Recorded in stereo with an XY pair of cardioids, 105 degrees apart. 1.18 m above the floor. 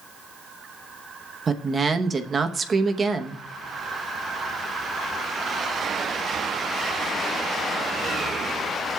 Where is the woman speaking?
35° right, 0.9 m.